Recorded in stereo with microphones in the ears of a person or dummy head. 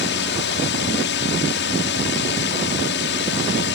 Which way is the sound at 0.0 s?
60° left (ahead or behind).